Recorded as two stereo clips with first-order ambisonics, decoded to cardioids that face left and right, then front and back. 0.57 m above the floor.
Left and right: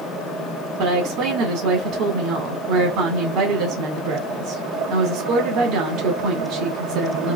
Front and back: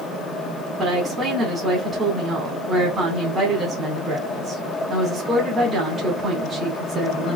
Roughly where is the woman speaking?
Behind right.